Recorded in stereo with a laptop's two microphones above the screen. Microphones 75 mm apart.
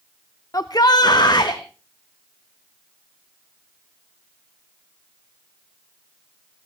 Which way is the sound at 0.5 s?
50° left (ahead or behind).